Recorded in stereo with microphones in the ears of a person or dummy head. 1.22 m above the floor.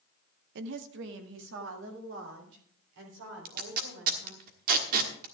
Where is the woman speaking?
70° right (ahead or behind), 0.9 m; by 4.5 s 75° right (ahead or behind), 5.5 m.